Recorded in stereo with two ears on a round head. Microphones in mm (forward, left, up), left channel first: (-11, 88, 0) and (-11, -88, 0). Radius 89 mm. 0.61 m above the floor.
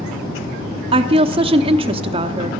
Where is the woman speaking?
25° right (ahead or behind), 0.7 m.